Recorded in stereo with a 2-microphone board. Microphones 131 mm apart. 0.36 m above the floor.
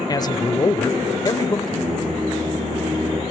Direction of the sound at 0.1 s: 30° left (ahead or behind).